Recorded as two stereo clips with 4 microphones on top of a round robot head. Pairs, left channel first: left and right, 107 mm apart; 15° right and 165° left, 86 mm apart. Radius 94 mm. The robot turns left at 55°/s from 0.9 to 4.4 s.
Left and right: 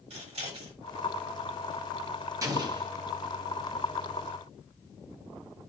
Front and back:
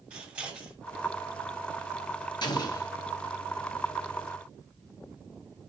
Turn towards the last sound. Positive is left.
turn(degrees=-145)